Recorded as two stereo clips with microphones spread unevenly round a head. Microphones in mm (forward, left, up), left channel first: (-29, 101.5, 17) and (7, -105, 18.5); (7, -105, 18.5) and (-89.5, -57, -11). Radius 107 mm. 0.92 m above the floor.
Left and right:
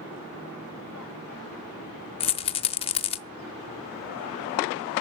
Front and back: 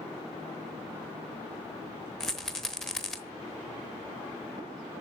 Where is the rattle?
45° left, 0.8 m.